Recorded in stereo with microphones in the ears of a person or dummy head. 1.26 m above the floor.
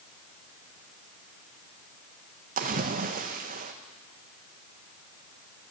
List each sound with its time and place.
2.6 s a splash: 45° right (ahead or behind), 1.5 m